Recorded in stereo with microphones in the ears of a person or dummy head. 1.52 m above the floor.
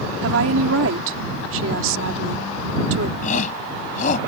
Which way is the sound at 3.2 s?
40° left (ahead or behind).